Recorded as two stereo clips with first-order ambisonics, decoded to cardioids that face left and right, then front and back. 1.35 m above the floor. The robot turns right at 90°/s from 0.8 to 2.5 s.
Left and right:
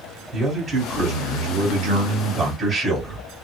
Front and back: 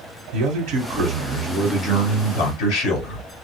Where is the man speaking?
160° right, 1.6 m; by 3.3 s 10° right, 1.6 m.